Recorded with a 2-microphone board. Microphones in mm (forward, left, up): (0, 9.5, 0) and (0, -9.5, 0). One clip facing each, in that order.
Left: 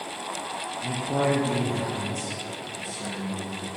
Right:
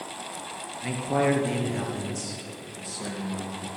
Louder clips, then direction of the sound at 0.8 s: Right 1 dB; 25° right (ahead or behind).